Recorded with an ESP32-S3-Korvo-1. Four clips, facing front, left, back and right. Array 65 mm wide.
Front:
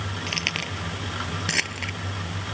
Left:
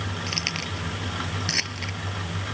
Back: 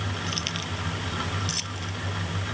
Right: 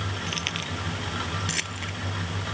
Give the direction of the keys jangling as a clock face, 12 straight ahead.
11 o'clock.